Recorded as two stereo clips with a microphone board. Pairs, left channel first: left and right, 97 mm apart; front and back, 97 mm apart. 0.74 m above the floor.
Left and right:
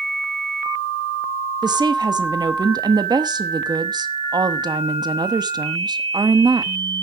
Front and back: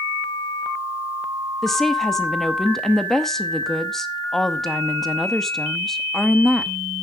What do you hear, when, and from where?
1.6 s a woman speaking: 85° right, 0.8 m